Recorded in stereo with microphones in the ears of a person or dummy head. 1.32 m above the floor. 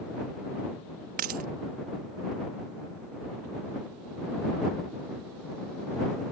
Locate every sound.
1.2 s a dropped coin: 40° right (ahead or behind)